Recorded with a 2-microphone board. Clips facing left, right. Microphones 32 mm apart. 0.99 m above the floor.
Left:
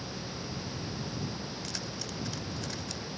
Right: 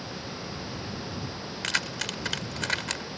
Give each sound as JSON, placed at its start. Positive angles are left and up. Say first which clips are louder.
{"t": 1.6, "sound": "keys jangling", "louder": "right 9 dB", "side_deg": -90}